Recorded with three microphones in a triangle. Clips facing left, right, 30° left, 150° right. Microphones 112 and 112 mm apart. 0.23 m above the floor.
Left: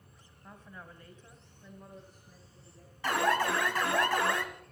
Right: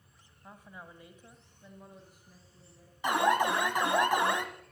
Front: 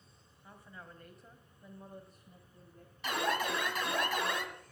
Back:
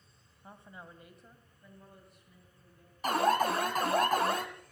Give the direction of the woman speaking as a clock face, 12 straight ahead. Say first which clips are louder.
Even, back 2 dB; 5 o'clock.